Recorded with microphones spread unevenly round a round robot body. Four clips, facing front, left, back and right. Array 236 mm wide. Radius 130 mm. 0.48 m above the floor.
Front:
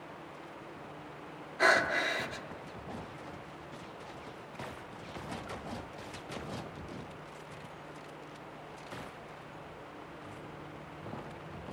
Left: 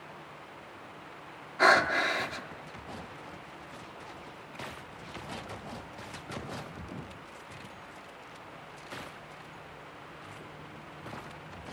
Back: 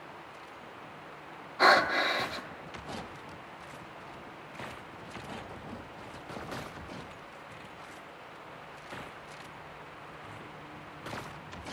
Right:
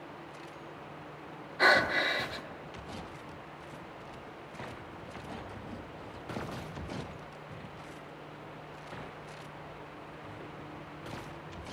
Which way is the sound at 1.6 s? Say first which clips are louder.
Left 2 dB, back 4 dB; 130° left.